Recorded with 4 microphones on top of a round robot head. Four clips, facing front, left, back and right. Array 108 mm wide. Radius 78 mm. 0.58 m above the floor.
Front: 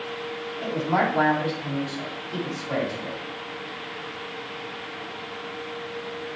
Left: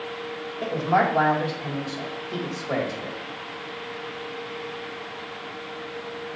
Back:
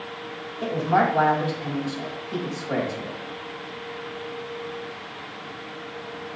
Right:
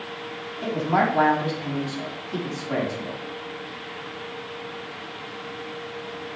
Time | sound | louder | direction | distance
0.6 | a woman speaking | even, back 3 dB | 105° left | 3.5 m